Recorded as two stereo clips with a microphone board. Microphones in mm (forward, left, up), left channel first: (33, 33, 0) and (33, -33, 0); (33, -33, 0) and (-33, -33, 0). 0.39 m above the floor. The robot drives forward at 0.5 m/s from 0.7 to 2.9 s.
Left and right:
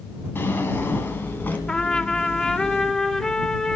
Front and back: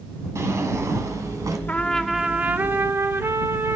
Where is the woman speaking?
I don't hear a woman speaking.